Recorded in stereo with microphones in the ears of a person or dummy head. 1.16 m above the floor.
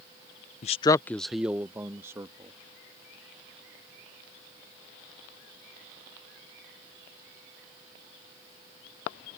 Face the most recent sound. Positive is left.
turn(degrees=-15)  # may be behind; listen again after turning